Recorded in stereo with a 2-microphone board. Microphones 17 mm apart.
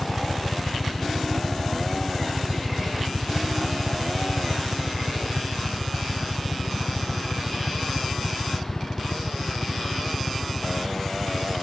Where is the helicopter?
35° left (ahead or behind); by 11.6 s 70° left (ahead or behind).